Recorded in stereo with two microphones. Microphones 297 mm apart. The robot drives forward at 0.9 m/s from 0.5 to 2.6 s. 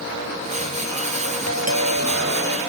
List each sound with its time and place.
1.5 s a doorbell: 60° right (ahead or behind); by 2.6 s 55° right (ahead or behind)